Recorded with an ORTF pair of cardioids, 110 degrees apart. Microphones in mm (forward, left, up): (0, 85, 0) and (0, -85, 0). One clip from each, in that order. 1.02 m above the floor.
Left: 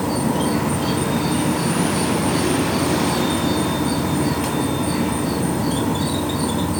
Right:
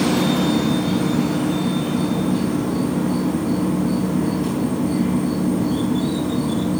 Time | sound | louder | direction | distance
0.0 | an insect | right 2 dB | 65° left | 3.5 m